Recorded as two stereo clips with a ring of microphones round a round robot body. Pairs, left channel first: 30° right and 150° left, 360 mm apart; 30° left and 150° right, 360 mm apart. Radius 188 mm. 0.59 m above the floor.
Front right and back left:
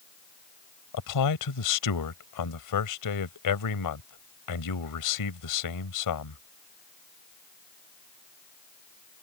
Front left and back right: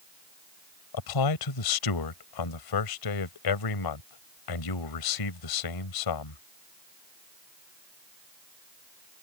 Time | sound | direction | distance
0.9 | a man speaking | 5° left | ?